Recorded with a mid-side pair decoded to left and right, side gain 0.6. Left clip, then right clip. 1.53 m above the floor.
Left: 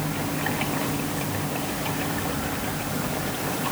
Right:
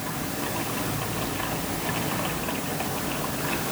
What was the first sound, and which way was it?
Only background noise.